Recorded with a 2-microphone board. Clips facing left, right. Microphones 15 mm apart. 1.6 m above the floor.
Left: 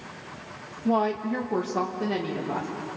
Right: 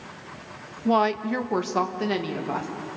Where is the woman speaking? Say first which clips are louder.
Right 3 dB; 50° right (ahead or behind), 0.6 m; by 2.7 s 75° right (ahead or behind), 2 m.